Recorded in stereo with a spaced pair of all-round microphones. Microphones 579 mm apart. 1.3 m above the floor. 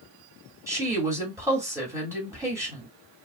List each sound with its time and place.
0.7 s a woman speaking: 5° right (ahead or behind), 2.5 m